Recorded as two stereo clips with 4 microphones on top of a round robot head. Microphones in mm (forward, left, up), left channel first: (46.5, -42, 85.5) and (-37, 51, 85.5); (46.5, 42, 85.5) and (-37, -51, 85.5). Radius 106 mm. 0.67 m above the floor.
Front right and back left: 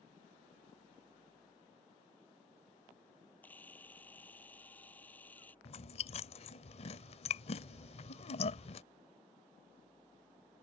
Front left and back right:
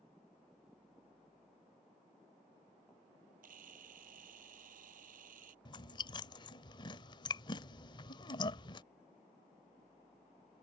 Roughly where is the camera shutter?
Behind right.